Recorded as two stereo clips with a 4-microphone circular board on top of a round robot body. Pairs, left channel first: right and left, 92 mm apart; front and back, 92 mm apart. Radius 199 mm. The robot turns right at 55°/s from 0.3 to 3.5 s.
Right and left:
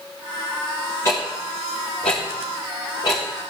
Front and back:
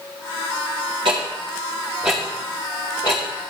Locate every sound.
1.1 s ticking: 150° right, 0.7 m; by 3.5 s 15° right, 0.7 m